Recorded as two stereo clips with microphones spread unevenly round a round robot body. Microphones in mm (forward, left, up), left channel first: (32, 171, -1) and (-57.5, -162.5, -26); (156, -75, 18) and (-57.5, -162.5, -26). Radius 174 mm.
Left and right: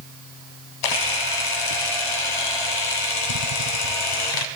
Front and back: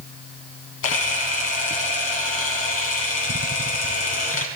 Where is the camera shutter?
65° left, 1.1 m.